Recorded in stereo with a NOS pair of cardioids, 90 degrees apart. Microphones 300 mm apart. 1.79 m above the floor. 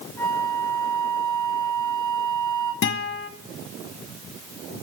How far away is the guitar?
About 0.9 m.